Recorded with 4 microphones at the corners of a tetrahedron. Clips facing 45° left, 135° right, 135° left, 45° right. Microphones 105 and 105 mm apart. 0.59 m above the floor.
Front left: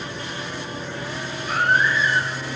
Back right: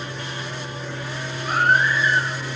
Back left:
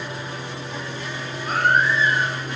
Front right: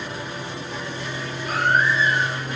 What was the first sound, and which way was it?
A baby crying, 175° right.